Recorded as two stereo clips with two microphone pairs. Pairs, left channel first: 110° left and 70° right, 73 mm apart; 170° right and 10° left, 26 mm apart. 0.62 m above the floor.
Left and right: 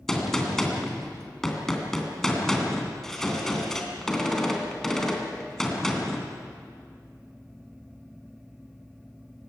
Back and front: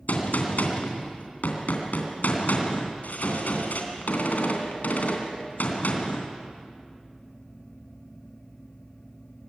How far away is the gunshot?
About 3 m.